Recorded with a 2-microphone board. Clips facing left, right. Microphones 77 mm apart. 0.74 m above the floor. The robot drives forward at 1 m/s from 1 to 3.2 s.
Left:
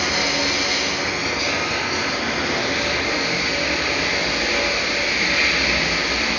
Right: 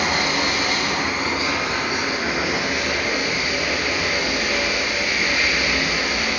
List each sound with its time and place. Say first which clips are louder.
0.0 s running water: right 1 dB; 45° right (ahead or behind), 1.5 m; by 6.4 s 15° right (ahead or behind), 3.5 m